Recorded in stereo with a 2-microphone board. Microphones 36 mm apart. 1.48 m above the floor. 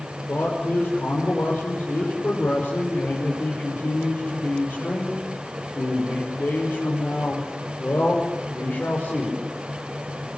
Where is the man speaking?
85° left, 5.5 m.